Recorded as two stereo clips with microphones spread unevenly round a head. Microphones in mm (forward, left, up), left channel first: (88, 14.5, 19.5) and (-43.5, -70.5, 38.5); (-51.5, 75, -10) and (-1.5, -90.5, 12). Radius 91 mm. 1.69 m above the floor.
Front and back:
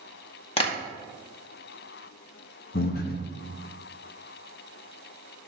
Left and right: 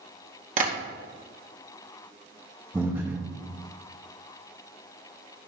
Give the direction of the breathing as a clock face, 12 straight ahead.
12 o'clock.